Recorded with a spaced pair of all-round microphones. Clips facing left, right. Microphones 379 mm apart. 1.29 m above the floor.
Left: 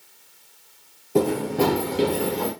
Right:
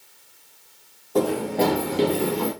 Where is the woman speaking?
No woman speaking in this recording.